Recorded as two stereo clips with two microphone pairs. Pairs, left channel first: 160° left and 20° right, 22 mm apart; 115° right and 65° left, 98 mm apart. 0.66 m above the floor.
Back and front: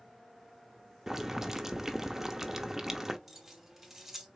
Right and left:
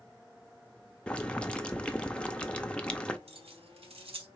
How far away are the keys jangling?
About 1.5 m.